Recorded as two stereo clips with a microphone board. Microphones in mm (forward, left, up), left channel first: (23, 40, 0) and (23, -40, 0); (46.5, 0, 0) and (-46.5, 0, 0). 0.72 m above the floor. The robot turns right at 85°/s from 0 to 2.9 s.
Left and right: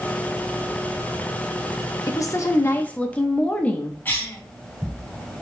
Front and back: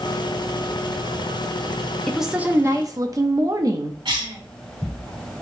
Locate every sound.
2.1 s a woman speaking: 85° left, 0.6 m; by 4.0 s 155° left, 0.6 m
4.0 s a cough: 155° left, 1.9 m